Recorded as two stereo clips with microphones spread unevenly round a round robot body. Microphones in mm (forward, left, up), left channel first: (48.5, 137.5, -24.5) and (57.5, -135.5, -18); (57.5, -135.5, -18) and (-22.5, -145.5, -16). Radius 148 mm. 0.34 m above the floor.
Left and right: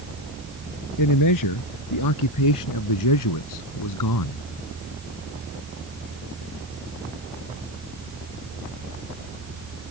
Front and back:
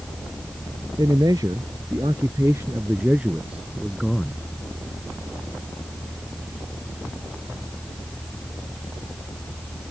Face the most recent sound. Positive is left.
turn(degrees=95)